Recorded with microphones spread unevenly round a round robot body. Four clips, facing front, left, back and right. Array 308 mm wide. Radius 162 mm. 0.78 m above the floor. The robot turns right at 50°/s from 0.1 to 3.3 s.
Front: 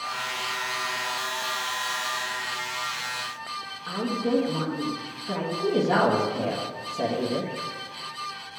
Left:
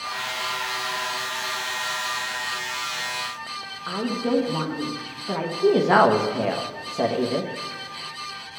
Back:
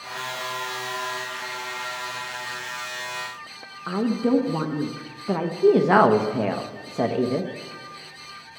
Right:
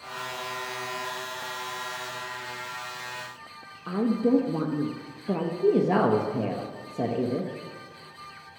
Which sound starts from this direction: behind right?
A woman speaking, at 3.9 s.